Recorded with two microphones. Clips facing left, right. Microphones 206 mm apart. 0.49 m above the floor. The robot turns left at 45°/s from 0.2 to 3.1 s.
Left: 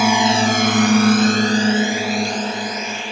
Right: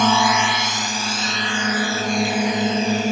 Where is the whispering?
I don't hear whispering.